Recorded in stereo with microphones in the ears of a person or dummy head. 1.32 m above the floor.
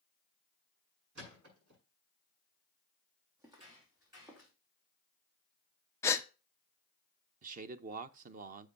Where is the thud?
55° right (ahead or behind), 6.5 m.